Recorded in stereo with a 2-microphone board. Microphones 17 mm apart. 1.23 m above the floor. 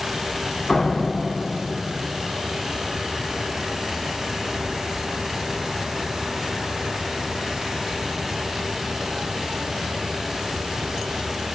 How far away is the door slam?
About 2 m.